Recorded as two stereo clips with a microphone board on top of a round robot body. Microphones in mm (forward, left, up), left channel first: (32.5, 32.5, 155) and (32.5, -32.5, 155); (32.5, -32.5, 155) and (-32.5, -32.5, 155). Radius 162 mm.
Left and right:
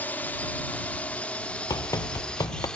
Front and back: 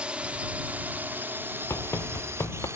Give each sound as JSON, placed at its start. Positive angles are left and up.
{"t": 0.0, "sound": "a drone", "azimuth_deg": 125}
{"t": 1.7, "sound": "running footsteps", "azimuth_deg": 55}